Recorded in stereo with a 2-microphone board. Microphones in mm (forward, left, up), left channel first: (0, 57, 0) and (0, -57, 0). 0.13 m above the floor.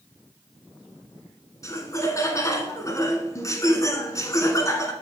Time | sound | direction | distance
1.6 | laughter | 25° left (ahead or behind) | 1.3 m